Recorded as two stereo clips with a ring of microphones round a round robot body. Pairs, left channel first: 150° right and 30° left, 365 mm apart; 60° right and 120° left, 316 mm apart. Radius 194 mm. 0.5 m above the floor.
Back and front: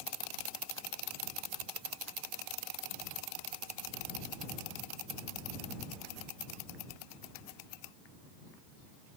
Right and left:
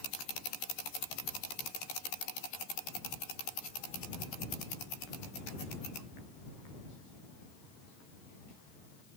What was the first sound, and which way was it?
Only background noise.